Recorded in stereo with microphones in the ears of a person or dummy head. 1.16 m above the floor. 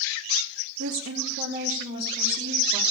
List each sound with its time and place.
0.8 s a woman speaking: 75° right (ahead or behind), 1.4 m; by 2.8 s 25° right (ahead or behind), 3 m